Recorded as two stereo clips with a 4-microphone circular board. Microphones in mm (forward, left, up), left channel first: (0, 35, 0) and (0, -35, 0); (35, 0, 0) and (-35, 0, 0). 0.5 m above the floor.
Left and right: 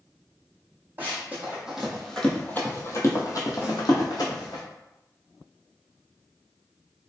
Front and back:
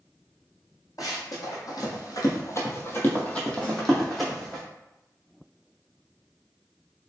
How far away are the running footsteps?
About 1.3 m.